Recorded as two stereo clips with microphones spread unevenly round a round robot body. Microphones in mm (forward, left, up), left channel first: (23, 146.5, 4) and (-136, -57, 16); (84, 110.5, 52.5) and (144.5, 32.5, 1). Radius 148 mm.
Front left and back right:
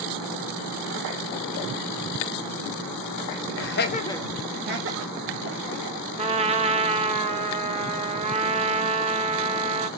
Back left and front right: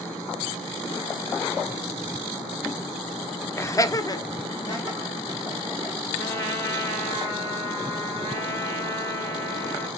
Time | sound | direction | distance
3.6 | laughter | 45° left | 0.9 m
6.2 | a trumpet | 170° left | 0.7 m